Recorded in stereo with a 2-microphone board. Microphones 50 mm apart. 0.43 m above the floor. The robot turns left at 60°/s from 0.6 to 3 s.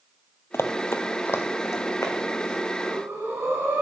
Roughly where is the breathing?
Right.